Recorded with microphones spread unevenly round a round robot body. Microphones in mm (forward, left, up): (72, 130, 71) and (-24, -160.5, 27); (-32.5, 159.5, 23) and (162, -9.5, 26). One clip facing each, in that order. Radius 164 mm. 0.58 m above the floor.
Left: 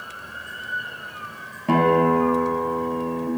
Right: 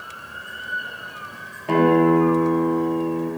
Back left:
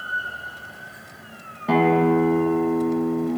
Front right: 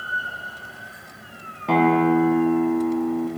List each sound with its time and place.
1.7 s a guitar: 50° left, 1.1 m